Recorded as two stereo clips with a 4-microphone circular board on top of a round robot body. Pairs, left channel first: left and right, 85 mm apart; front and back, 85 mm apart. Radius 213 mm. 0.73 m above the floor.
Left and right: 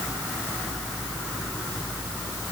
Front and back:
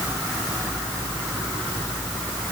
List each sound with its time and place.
Only background noise.